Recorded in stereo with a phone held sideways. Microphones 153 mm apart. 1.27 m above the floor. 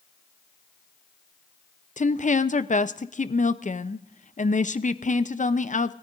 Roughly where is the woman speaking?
Left.